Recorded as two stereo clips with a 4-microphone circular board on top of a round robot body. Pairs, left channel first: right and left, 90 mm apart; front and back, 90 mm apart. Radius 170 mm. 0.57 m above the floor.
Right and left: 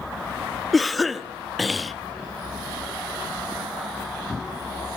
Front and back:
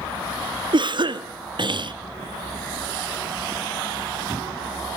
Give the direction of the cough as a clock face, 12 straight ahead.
6 o'clock.